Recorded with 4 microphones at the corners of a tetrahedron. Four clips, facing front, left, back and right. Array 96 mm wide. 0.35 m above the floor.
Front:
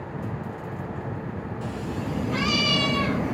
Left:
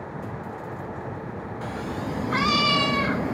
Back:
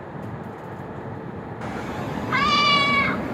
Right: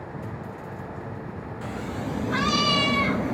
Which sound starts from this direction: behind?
A cat meowing, at 1.6 s.